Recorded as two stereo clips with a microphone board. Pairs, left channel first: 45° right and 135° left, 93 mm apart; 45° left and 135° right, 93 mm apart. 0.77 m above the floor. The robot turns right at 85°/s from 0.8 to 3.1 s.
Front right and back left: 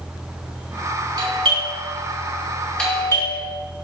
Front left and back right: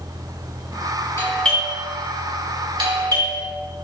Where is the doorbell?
100° left, 2.5 m; by 3.4 s 100° right, 2.5 m.